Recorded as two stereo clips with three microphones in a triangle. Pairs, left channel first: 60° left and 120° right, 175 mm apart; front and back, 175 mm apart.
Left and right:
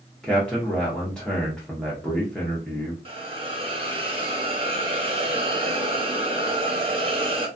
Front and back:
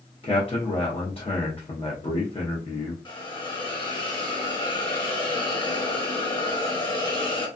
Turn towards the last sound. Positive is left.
turn(degrees=-60)